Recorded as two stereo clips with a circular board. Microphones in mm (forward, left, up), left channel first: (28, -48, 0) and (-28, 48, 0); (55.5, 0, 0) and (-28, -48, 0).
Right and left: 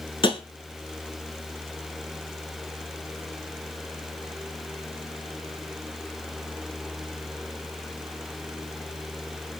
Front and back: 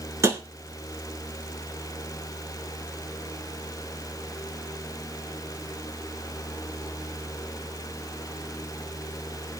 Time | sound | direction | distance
0.2 | tapping | 95° right | 0.5 m